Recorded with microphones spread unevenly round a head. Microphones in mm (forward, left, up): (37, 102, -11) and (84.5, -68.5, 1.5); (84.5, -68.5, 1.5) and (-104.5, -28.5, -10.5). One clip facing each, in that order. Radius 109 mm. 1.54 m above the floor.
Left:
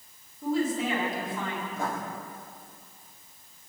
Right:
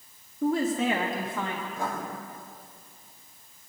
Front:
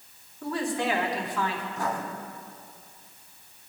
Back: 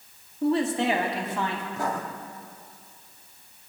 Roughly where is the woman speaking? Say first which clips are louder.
Right 2 dB, back 5 dB; behind right.